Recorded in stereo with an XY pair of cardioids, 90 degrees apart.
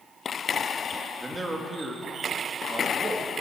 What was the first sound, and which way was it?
A man speaking, 20° right.